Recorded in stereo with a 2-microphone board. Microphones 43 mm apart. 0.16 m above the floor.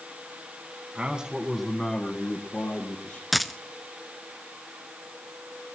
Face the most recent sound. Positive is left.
turn(degrees=0)  # may be behind; listen again after turning